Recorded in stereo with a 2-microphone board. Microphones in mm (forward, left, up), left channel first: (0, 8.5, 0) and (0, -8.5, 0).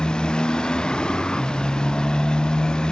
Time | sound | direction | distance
0.0 | a motorcycle | 80° left | ?